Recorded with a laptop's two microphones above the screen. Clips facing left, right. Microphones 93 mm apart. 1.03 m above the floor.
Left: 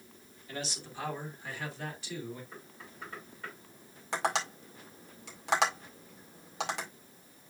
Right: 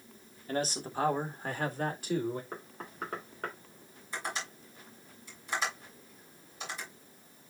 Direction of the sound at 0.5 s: 40° right (ahead or behind).